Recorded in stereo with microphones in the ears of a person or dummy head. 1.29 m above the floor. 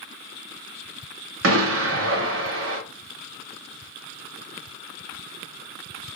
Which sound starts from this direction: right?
An explosion, at 1.4 s.